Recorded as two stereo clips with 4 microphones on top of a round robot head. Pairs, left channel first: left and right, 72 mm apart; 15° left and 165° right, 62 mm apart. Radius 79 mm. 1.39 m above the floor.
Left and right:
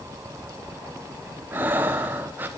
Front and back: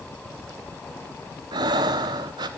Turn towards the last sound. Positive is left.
turn(degrees=-160)